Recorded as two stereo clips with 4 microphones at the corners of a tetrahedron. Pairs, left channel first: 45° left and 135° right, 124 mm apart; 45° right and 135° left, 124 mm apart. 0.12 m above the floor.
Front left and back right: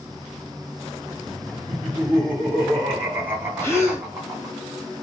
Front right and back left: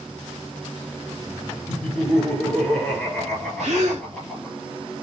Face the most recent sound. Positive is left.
turn(degrees=115)